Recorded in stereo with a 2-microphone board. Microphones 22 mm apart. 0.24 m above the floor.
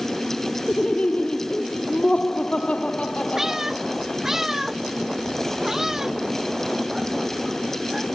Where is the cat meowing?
20° right (ahead or behind).